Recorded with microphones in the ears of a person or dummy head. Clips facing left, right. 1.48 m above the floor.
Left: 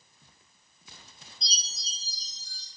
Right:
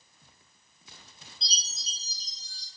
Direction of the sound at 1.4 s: 20° right (ahead or behind).